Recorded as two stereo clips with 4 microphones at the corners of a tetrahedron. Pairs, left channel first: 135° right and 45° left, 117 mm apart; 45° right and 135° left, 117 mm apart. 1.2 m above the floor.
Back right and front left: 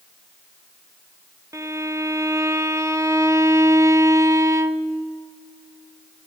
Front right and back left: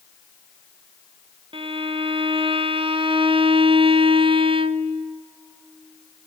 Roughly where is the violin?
Left.